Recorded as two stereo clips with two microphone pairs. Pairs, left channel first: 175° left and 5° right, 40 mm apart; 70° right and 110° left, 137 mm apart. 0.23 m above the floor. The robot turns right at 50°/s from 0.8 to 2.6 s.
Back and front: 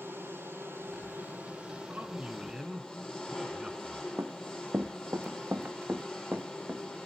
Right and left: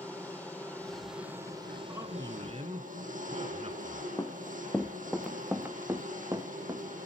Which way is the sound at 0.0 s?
5° left.